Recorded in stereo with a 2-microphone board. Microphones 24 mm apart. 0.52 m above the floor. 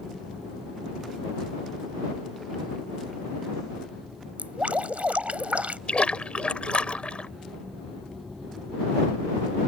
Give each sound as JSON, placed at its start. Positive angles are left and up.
{"t": 4.4, "sound": "dripping", "side_deg": -75}
{"t": 5.9, "sound": "a splash", "side_deg": 60}